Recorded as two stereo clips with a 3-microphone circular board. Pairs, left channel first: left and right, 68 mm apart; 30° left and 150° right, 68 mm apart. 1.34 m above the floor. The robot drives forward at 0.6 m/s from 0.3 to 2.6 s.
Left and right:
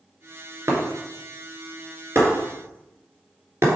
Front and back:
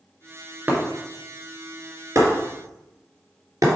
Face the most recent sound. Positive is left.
turn(degrees=-130)